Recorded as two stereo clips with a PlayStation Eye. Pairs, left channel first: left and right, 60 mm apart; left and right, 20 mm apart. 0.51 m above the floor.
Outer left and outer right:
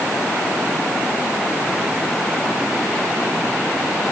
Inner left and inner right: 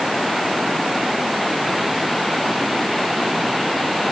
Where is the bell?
No bell in this recording.